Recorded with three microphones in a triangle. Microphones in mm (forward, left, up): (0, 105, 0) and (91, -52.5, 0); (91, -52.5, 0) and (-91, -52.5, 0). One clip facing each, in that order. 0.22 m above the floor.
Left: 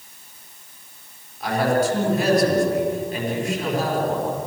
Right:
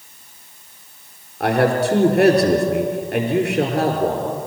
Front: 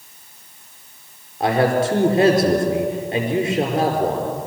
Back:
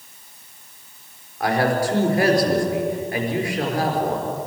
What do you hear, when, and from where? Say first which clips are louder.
1.4 s a man speaking: right 3 dB, front 3 dB; 65° right, 4.5 m